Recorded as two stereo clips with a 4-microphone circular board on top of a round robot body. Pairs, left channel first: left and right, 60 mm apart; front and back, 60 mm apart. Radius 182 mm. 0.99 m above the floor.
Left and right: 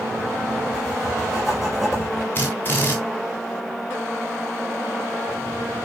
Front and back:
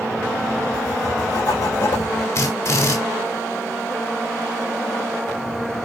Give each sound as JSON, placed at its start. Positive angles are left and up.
{"t": 0.7, "sound": "writing", "azimuth_deg": 0, "distance_m": 6.0}
{"t": 2.4, "sound": "a drill", "azimuth_deg": 35, "distance_m": 3.5}